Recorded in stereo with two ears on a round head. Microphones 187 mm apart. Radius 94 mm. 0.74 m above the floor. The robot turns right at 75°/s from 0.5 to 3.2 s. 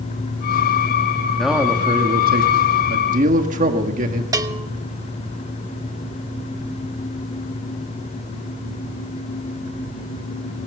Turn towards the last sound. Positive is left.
turn(degrees=-15)  # may be behind; listen again after turning